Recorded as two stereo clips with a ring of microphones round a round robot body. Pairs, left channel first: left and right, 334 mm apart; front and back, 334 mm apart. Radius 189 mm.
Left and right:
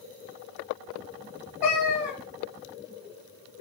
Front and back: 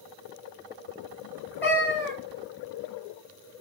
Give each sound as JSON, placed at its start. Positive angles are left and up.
{"t": 1.6, "sound": "a cat meowing", "azimuth_deg": 85, "distance_m": 2.0}